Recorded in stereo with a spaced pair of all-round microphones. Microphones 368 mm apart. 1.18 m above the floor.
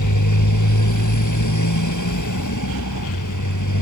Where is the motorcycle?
55° left (ahead or behind).